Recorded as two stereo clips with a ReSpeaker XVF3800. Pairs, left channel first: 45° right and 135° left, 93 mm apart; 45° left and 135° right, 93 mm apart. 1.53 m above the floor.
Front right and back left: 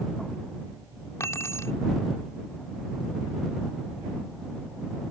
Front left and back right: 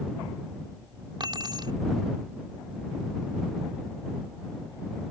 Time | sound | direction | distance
1.2 | keys jangling | 105° right | ?